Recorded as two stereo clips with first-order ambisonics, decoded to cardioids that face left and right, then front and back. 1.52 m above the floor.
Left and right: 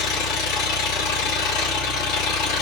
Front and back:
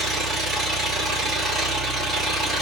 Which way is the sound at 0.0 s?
100° left.